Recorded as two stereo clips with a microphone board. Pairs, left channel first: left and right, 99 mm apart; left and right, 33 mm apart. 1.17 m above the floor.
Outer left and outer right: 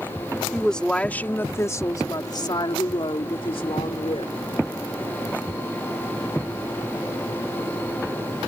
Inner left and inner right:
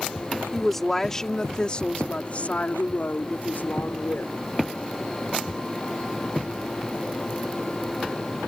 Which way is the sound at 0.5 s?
5° left (ahead or behind).